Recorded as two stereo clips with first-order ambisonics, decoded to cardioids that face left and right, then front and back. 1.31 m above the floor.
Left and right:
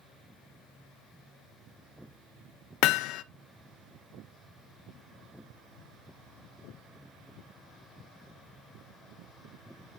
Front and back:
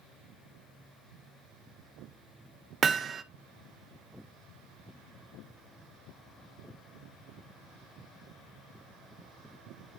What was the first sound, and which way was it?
Hammering, 115° left.